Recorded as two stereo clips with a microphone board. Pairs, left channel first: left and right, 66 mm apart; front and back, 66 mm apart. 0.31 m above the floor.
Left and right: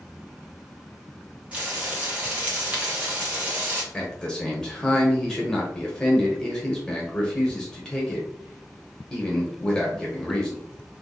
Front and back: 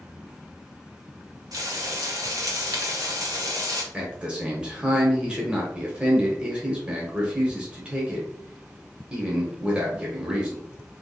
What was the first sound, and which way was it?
Frying, 160° right.